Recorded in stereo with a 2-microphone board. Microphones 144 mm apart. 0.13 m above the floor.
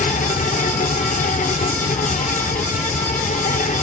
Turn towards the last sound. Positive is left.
turn(degrees=65)  # may be behind; listen again after turning